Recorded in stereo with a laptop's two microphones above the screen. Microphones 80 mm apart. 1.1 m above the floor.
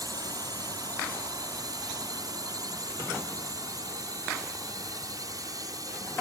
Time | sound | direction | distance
0.0 | a drone | 55° right (ahead or behind) | ?